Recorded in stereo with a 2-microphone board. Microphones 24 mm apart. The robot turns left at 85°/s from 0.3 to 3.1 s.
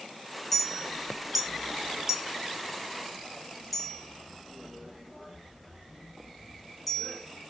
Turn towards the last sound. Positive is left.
turn(degrees=0)  # may be behind; listen again after turning